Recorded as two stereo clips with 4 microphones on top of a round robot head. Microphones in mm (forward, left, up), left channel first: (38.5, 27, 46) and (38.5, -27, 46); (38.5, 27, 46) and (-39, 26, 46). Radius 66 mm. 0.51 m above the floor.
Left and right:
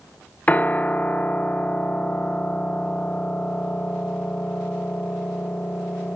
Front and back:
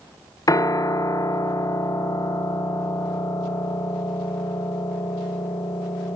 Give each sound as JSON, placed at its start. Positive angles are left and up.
{"t": 0.5, "sound": "a piano", "azimuth_deg": 30, "distance_m": 0.9}